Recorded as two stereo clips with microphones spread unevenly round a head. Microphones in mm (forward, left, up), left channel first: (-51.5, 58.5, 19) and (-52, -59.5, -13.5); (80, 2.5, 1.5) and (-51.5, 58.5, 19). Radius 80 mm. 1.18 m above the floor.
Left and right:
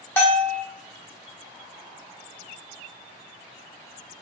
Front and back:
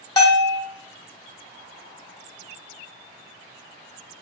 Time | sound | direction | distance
0.2 | a bell | 45° left | 1.0 m